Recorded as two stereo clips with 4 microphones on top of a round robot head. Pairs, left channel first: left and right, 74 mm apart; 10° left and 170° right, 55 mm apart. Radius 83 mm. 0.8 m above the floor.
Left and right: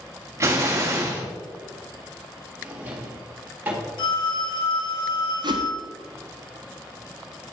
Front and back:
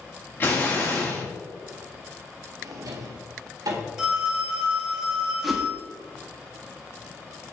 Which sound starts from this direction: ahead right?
An explosion, at 0.4 s.